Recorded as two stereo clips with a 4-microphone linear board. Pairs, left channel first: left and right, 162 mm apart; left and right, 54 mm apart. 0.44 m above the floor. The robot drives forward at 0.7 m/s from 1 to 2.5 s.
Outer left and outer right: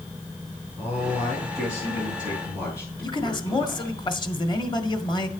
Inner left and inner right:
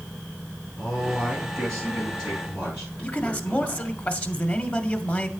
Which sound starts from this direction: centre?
A man speaking, at 0.8 s.